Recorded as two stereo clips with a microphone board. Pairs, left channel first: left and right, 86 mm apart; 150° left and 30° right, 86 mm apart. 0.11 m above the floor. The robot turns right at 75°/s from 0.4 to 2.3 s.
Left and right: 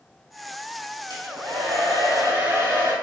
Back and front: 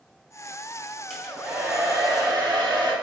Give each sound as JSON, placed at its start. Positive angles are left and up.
{"t": 1.1, "sound": "a hair dryer", "azimuth_deg": -125, "distance_m": 2.5}